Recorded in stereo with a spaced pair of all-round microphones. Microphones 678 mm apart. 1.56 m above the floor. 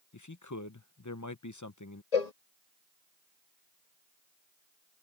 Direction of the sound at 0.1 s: 25° left (ahead or behind).